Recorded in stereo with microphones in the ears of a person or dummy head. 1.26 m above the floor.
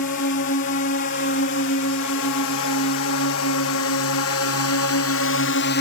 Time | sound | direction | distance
0.0 | a drone | 55° left (ahead or behind) | ?